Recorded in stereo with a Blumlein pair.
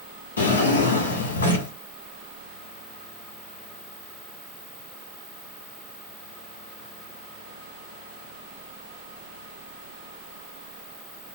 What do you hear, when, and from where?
0.4 s a drawer: 70° left, 1.7 m